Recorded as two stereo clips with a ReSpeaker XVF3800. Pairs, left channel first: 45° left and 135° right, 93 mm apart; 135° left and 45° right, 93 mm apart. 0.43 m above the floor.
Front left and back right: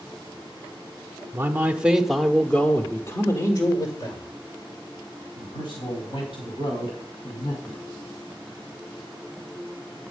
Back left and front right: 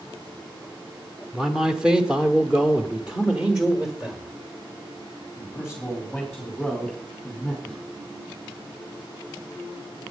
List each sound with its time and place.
1.3 s a man speaking: 120° right, 1.2 m; by 7.8 s 40° left, 4 m